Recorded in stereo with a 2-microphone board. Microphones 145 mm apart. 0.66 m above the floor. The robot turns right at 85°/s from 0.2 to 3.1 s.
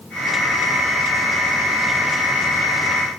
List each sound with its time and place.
Only background noise.